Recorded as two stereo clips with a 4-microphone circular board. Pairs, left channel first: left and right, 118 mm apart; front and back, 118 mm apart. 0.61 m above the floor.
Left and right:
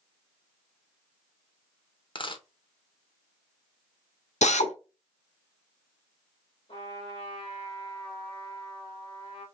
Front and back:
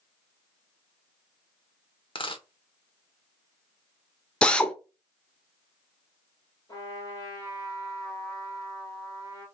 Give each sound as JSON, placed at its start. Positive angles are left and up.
{"t": 2.1, "sound": "a dropped coin", "azimuth_deg": 45, "distance_m": 0.7}
{"t": 4.4, "sound": "a drill", "azimuth_deg": 80, "distance_m": 0.7}
{"t": 6.7, "sound": "a trumpet", "azimuth_deg": 60, "distance_m": 3.0}